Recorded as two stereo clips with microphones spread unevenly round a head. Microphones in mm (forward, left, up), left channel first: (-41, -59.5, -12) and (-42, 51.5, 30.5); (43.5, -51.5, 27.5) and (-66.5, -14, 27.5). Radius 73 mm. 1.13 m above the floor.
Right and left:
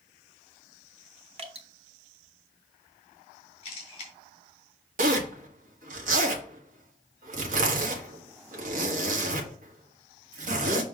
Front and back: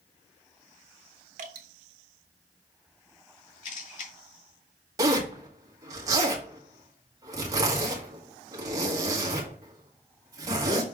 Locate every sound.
1.4 s dripping: 125° left, 1.3 m
3.6 s a camera shutter: 30° right, 2.5 m
5.0 s a zipper: 95° left, 1.5 m